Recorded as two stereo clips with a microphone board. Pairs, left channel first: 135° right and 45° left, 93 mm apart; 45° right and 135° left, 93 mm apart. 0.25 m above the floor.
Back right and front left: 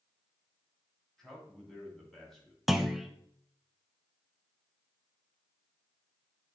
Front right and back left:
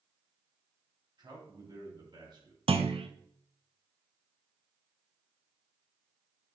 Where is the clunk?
130° left, 0.6 m.